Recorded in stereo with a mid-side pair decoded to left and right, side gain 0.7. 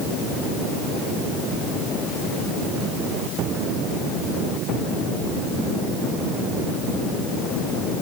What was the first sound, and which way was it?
Only background noise.